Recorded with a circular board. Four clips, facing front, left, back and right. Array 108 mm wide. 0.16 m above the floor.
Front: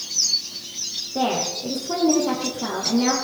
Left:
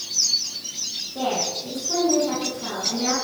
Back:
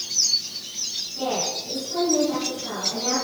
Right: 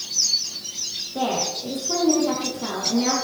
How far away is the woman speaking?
About 6 m.